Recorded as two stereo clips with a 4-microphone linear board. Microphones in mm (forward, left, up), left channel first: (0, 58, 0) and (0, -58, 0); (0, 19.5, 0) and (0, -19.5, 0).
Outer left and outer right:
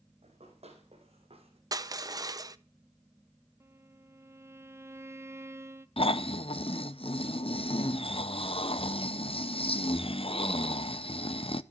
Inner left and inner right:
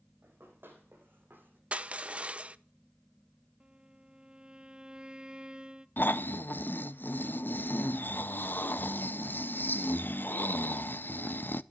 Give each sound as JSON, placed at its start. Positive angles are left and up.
{"t": 0.2, "sound": "running footsteps", "side_deg": -65, "distance_m": 4.0}
{"t": 1.7, "sound": "crushing", "side_deg": -35, "distance_m": 0.6}
{"t": 3.6, "sound": "a violin", "side_deg": -20, "distance_m": 0.6}
{"t": 6.0, "sound": "snoring", "side_deg": 55, "distance_m": 0.5}